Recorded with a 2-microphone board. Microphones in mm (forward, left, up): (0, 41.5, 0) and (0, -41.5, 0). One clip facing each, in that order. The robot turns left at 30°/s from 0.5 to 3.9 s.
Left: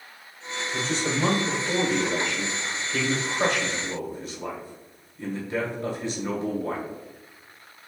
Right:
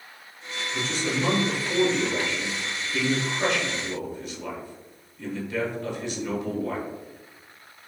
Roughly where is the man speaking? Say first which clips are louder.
Left 1 dB; behind left.